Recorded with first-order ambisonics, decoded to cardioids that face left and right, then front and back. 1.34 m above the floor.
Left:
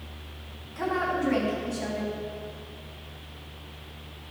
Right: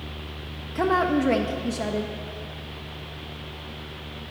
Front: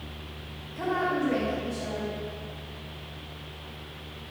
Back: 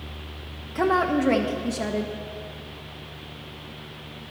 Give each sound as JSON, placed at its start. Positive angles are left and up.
{"t": 0.8, "sound": "a woman speaking", "azimuth_deg": -130, "distance_m": 0.6}